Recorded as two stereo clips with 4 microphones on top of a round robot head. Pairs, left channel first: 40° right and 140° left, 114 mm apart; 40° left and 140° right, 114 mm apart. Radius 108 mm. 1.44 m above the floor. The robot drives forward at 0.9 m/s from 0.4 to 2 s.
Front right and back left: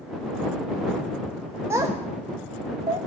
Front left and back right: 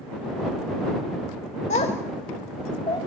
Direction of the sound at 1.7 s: 70° left.